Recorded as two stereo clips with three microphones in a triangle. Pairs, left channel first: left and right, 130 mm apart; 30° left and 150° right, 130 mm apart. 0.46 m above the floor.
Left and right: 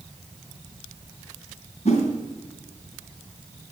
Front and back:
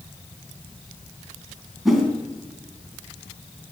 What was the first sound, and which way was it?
A whoosh, 120° left.